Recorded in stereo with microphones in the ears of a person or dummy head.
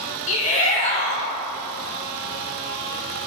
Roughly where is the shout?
Left.